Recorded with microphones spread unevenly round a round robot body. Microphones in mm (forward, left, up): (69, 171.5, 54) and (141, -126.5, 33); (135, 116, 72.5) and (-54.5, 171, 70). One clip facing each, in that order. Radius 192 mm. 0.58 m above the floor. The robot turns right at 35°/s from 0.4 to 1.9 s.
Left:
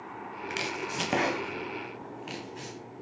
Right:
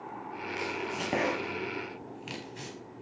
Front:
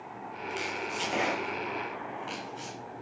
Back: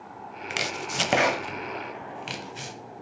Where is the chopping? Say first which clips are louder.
Right 1 dB, back 3 dB; 155° left, 0.9 m; by 2.8 s 160° right, 0.9 m.